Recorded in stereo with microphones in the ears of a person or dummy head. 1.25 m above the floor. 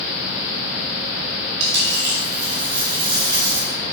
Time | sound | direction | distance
1.6 | a dropped coin | 50° right (ahead or behind) | 2 m